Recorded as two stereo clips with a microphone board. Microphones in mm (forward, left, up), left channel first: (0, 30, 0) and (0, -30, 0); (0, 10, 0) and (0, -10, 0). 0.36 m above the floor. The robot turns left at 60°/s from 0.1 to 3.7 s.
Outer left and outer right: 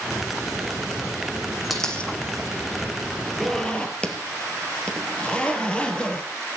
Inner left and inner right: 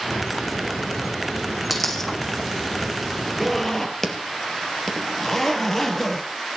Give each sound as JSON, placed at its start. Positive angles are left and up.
{"t": 1.7, "sound": "a dropped coin", "side_deg": 0, "distance_m": 2.5}
{"t": 3.4, "sound": "a zipper", "side_deg": 0, "distance_m": 3.0}